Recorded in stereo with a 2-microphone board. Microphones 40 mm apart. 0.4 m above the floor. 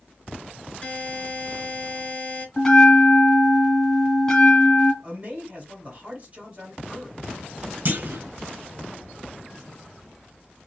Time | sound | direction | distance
0.8 | a buzzer | 30° left (ahead or behind) | 0.8 m
2.6 | a bell | 15° left (ahead or behind) | 0.7 m
5.0 | a man speaking | 30° right (ahead or behind) | 1.7 m
7.8 | a clunk | 50° right (ahead or behind) | 0.6 m